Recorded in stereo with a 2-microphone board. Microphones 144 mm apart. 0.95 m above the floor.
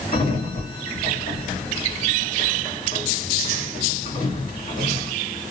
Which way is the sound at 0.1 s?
65° left (ahead or behind).